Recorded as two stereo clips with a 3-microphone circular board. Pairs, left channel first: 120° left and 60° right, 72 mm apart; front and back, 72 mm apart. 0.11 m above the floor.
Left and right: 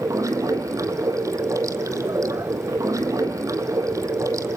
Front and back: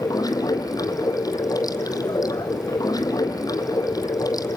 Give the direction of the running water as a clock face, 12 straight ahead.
1 o'clock.